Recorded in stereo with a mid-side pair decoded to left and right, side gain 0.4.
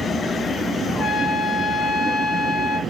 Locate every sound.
0.9 s a trumpet: 65° left, 0.8 m